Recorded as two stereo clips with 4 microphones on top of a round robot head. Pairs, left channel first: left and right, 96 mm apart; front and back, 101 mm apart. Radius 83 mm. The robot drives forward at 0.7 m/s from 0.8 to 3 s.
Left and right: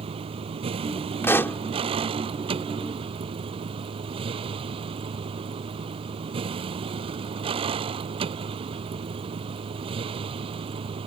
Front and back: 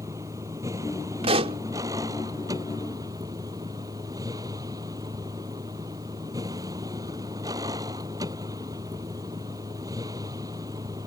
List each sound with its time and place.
0.0 s a vehicle: 110° right; by 11.1 s 115° right
1.2 s a pop: 155° left; by 1.6 s 160° left